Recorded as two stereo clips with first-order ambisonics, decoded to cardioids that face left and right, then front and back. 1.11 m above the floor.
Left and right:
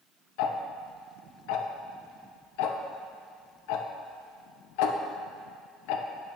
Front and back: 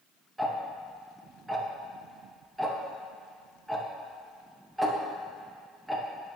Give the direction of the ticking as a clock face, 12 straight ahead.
9 o'clock.